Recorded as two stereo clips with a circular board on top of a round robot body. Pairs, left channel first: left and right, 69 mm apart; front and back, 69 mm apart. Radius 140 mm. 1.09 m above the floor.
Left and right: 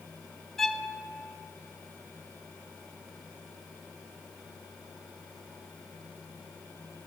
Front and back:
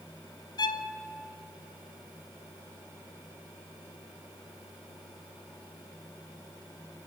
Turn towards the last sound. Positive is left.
turn(degrees=5)